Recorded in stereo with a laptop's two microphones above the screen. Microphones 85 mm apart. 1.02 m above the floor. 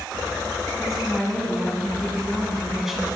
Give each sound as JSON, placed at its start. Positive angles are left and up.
{"t": 0.8, "sound": "a woman speaking", "side_deg": -5, "distance_m": 9.0}